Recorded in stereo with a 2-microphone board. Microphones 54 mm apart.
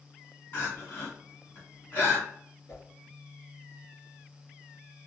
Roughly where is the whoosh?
Left.